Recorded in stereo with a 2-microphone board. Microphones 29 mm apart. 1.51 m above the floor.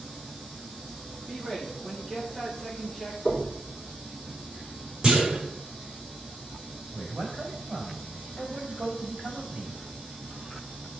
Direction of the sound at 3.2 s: 15° left (ahead or behind).